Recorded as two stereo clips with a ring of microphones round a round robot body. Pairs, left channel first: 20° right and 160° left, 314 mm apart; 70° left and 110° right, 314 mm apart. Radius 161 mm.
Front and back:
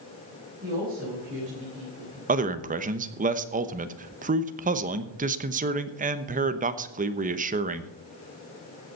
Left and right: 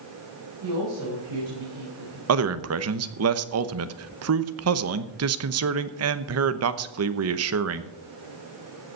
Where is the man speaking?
140° right, 1.0 m.